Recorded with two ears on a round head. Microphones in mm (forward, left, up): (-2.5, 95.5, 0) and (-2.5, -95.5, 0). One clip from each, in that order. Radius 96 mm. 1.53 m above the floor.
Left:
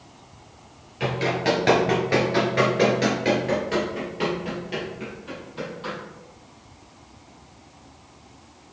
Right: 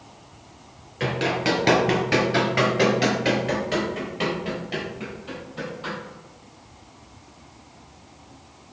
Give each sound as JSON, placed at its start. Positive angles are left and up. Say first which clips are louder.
{"t": 1.0, "sound": "running footsteps", "louder": "even", "side_deg": -10, "distance_m": 1.8}